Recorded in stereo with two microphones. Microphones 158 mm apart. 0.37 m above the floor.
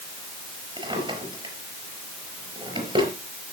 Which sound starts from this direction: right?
A drawer, at 0.8 s.